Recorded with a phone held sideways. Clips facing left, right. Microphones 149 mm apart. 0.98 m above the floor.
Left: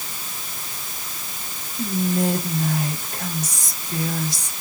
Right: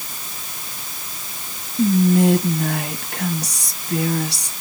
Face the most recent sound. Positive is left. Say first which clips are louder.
# right 7 dB
turn(degrees=-70)  # may be behind; listen again after turning